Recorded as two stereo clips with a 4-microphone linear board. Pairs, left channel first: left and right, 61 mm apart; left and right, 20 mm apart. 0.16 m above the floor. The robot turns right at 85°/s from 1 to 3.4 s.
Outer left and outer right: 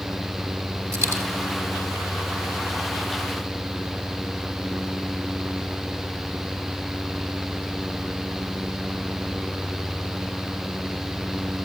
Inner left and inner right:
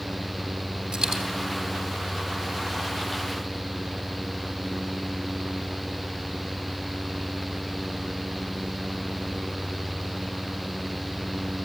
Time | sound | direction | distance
0.9 | a dropped coin | 55° right (ahead or behind) | 4 m